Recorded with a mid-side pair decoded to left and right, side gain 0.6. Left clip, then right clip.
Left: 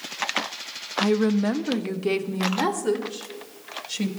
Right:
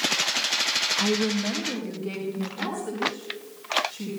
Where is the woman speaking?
10° left, 0.8 m; by 4.1 s 65° left, 4 m.